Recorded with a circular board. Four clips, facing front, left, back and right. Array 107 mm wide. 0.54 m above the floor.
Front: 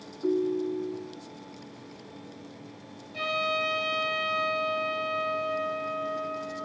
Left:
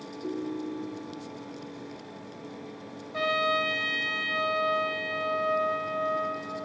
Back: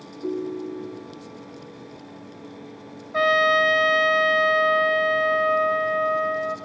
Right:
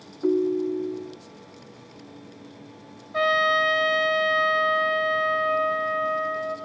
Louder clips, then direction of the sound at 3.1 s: Right 5 dB, back 11 dB; 165° right.